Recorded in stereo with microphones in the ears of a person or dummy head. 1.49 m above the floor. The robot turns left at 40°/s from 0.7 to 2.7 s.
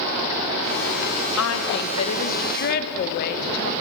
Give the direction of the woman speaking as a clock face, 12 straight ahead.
9 o'clock.